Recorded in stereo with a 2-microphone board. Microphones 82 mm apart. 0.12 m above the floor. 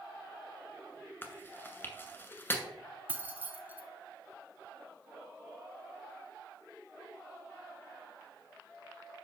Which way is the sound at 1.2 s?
25° left (ahead or behind).